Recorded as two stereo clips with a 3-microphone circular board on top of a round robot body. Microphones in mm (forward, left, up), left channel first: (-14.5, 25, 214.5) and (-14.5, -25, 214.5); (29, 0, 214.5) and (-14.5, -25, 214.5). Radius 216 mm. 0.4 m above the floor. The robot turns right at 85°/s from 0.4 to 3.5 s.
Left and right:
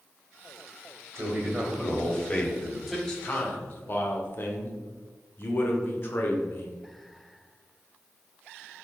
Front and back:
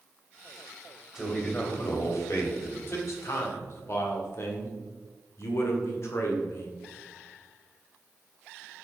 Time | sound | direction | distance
1.1 | a man speaking | 70° right | 2.5 m
2.9 | a man speaking | straight ahead | 2 m